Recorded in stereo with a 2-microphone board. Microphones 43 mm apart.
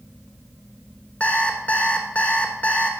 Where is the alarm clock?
40° left (ahead or behind), 1.3 m.